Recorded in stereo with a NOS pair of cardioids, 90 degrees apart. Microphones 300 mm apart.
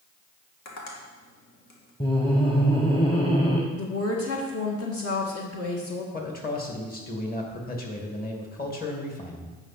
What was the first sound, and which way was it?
Tapping, 60° left.